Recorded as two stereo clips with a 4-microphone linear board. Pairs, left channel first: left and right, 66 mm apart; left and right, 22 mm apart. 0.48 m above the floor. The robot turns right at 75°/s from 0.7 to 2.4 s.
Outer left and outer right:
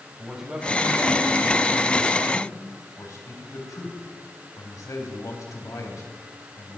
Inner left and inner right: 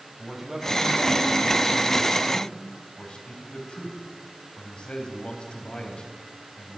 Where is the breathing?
I don't hear breathing.